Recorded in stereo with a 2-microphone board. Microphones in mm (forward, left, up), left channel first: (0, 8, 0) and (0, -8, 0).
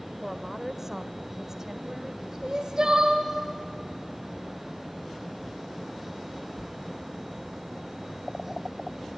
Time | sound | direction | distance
0.2 | a woman speaking | 15° right (ahead or behind) | 1.2 m
2.4 | crying | 40° right (ahead or behind) | 2.5 m